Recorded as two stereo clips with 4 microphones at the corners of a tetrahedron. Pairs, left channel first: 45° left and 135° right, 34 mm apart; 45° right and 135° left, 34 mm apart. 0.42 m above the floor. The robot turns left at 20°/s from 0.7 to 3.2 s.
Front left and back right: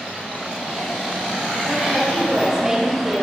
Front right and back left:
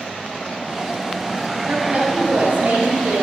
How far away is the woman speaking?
About 4.5 m.